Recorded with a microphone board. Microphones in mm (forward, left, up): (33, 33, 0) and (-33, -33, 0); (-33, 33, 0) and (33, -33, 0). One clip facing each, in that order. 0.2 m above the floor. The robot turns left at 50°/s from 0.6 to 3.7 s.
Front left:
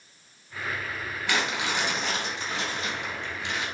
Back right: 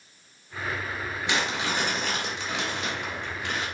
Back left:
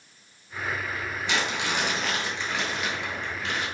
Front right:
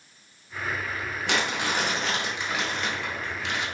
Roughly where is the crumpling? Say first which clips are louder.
Even, front right 1 dB; ahead right.